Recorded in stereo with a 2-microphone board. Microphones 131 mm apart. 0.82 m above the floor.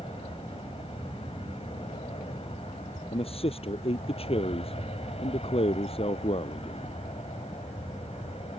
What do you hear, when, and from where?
0.0 s an aircraft: 50° left (ahead or behind); by 8.6 s 55° left (ahead or behind)
3.1 s a man speaking: 50° left (ahead or behind)